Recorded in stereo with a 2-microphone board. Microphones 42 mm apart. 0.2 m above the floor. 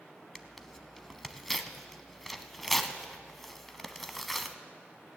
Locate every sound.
0.3 s tearing paper: 5° left (ahead or behind), 0.7 m